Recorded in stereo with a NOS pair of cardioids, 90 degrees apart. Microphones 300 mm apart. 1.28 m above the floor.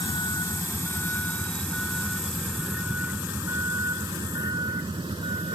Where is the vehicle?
15° left; by 5.6 s 15° right.